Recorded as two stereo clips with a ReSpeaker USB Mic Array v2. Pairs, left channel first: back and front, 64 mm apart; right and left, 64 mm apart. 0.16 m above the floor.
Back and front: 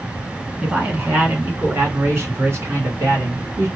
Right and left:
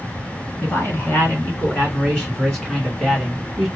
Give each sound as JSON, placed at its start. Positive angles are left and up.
{"t": 0.6, "sound": "a man speaking", "azimuth_deg": -65, "distance_m": 2.0}